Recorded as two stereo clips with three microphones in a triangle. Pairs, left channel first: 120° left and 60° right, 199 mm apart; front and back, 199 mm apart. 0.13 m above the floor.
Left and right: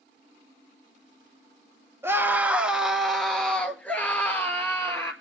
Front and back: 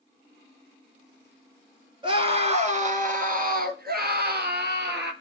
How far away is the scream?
About 1.5 m.